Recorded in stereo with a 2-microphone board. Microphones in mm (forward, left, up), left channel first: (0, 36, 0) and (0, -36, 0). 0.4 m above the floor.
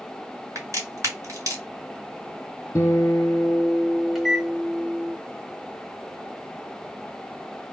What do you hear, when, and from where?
0.6 s a crack: 50° right (ahead or behind), 2 m
2.8 s a guitar: 45° left (ahead or behind), 1.1 m
4.2 s a microwave: 5° right (ahead or behind), 0.7 m